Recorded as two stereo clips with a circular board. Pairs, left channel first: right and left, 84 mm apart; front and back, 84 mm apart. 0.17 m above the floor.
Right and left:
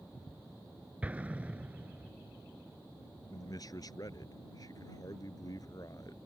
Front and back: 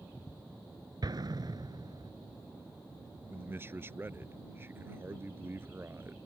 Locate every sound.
1.0 s an explosion: 160° left
3.3 s a man speaking: 120° right